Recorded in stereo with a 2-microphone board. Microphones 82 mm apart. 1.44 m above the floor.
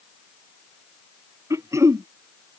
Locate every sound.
1.5 s throat clearing: 40° right (ahead or behind)